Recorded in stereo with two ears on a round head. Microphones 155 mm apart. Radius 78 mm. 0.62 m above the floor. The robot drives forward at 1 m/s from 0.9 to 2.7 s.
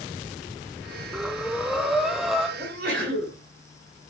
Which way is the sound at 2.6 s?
70° right (ahead or behind).